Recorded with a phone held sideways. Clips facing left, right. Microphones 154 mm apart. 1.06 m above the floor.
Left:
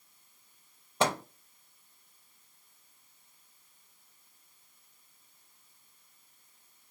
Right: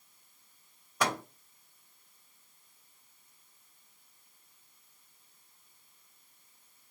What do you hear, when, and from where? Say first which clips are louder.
1.0 s a microwave: left 3 dB; 25° left (ahead or behind), 0.5 m